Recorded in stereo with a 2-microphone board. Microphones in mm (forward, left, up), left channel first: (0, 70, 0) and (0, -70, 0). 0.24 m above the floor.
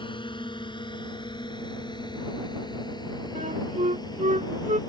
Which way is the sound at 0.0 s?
35° left (ahead or behind).